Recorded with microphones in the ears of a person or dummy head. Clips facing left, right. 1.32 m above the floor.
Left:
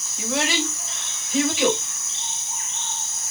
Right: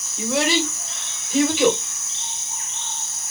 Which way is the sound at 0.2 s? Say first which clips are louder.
Right 4 dB; 85° right.